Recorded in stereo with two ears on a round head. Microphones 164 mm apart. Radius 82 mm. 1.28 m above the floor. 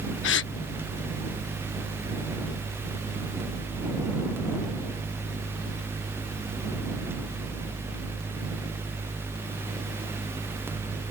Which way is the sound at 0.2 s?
70° left (ahead or behind).